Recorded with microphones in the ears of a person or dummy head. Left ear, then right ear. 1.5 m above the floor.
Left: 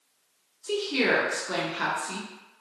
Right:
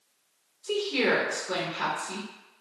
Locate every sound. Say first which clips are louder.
0.6 s a woman speaking: left 1 dB; 10° left (ahead or behind), 0.7 m